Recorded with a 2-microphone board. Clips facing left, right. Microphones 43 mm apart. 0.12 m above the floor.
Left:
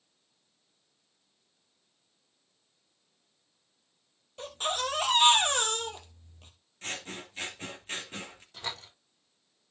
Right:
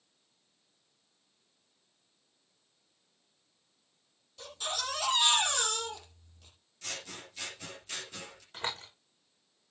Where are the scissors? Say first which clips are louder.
Left 4 dB; 35° left (ahead or behind), 3 m.